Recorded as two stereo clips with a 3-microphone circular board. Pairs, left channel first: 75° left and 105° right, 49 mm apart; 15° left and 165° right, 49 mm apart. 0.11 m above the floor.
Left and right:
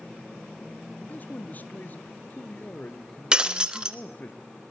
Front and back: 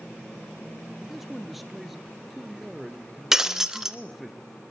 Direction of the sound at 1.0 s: 110° left.